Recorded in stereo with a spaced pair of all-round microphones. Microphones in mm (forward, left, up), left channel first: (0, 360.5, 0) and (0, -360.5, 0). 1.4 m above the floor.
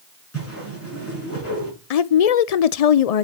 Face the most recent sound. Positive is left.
turn(degrees=60)  # may be behind; listen again after turning